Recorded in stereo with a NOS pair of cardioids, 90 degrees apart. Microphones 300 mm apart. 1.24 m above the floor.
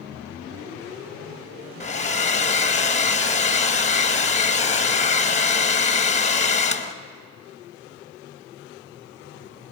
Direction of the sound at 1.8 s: 25° left.